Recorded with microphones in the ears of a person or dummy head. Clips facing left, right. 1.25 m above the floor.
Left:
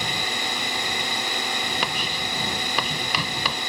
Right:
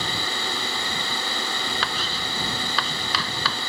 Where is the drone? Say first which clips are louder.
Even; 15° left (ahead or behind).